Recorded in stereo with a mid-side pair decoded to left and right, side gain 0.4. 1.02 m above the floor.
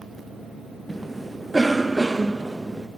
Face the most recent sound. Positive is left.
turn(degrees=-25)